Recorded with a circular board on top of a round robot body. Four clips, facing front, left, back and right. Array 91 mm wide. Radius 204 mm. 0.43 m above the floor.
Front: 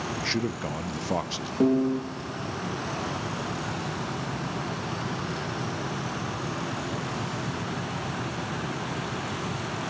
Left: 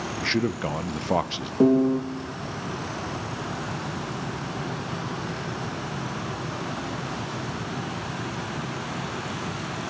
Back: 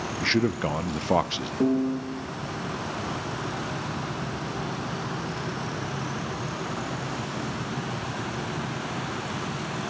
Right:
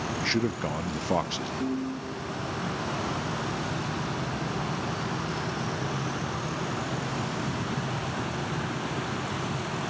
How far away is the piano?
About 1.2 m.